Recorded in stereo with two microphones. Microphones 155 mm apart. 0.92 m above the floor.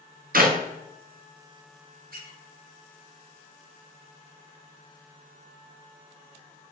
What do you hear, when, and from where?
0.3 s a clap: 65° right (ahead or behind), 0.5 m
2.1 s a squeak: 70° right (ahead or behind), 0.9 m